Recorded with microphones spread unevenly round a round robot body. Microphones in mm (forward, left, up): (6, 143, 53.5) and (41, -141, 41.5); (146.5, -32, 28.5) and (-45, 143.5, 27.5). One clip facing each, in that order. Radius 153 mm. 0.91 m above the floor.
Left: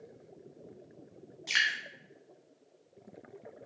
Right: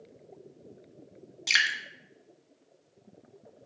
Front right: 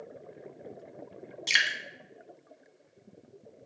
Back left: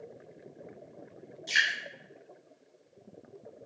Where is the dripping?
50° right, 1.6 m.